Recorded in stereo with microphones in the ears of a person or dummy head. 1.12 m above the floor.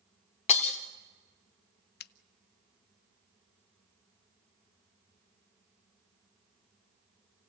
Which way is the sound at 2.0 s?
45° left (ahead or behind).